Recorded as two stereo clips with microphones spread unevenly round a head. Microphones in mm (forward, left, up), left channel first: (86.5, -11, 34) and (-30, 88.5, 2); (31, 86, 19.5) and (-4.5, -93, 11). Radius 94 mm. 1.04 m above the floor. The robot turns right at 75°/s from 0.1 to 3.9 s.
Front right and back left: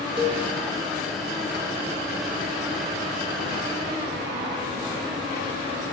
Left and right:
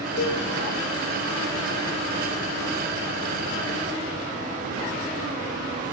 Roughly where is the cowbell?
Left.